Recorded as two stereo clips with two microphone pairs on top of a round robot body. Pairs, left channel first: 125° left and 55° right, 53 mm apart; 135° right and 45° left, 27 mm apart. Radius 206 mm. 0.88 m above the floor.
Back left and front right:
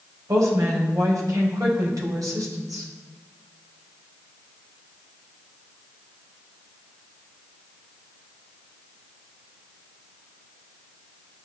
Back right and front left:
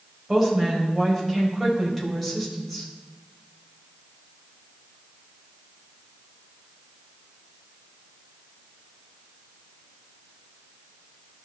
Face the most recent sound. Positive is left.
turn(degrees=-50)